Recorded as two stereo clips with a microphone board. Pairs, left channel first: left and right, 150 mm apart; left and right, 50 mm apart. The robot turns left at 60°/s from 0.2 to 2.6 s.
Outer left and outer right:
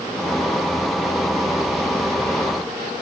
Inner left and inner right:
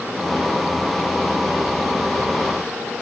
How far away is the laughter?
No laughter in this recording.